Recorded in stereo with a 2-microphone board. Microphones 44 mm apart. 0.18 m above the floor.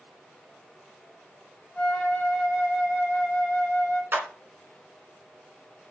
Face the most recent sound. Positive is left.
turn(degrees=-50)  # may be behind; listen again after turning